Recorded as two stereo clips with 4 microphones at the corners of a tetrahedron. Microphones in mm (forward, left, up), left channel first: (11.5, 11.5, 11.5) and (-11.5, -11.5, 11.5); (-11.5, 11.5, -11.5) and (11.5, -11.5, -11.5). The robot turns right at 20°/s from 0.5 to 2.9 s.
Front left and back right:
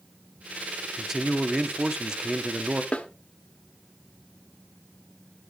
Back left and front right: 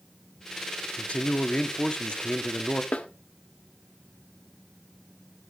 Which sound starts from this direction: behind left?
A man speaking, at 1.0 s.